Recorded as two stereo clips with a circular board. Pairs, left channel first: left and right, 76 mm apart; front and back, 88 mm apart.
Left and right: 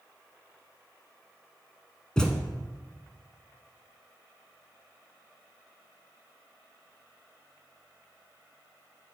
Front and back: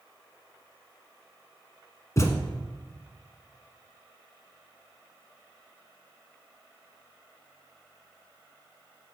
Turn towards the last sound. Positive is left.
turn(degrees=15)